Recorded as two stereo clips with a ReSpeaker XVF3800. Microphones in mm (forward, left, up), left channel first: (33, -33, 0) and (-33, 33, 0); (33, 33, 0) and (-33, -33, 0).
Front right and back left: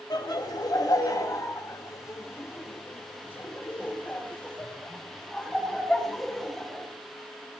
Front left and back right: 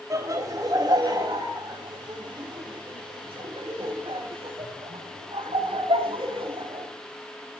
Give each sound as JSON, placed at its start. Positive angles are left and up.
{"t": 0.1, "sound": "laughter", "azimuth_deg": -85, "distance_m": 3.5}